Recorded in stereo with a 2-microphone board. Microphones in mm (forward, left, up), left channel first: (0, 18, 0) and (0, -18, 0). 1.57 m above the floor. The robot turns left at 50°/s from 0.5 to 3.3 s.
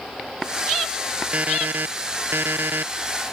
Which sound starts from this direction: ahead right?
An alarm clock, at 1.3 s.